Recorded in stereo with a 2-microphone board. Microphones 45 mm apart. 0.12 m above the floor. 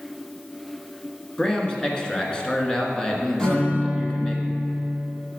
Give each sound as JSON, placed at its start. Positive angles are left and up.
{"t": 1.4, "sound": "a man speaking", "side_deg": 20, "distance_m": 1.2}
{"t": 3.4, "sound": "a guitar", "side_deg": 15, "distance_m": 2.5}